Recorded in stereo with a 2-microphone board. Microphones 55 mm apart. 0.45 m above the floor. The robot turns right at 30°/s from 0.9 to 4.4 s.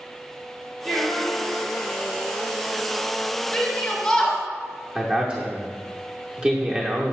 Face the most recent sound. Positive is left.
turn(degrees=-20)  # may be behind; listen again after turning